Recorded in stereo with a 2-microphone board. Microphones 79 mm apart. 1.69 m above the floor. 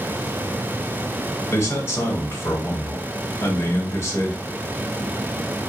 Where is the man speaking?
30° left (ahead or behind), 1.0 m.